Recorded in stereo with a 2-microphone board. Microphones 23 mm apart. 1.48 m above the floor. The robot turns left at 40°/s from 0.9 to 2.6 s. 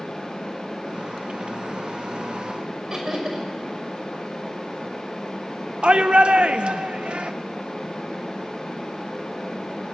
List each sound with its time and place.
2.9 s laughter: 30° right (ahead or behind), 5.5 m
5.8 s a shout: 60° right (ahead or behind), 0.8 m